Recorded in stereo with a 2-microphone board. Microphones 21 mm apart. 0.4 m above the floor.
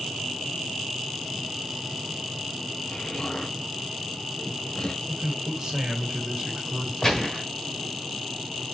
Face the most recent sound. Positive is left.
turn(degrees=25)  # may be behind; listen again after turning